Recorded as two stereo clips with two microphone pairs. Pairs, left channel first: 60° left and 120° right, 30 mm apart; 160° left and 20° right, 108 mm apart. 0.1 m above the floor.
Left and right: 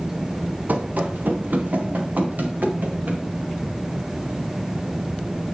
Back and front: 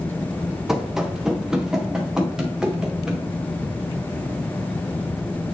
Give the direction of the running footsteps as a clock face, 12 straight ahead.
3 o'clock.